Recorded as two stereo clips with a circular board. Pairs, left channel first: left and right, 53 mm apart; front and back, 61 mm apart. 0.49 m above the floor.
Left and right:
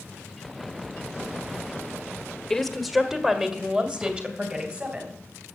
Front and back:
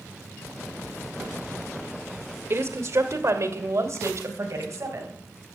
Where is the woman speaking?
170° left, 1.2 m; by 5.2 s 150° right, 3.5 m.